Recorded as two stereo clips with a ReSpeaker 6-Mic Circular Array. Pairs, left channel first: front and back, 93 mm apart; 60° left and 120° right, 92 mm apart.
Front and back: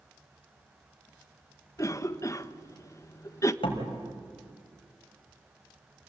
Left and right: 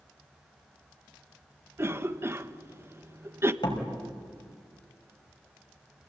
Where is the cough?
55° right, 1.2 m.